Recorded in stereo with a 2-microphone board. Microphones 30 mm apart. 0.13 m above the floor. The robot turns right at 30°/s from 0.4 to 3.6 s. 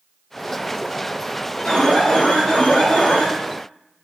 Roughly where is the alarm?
Ahead left.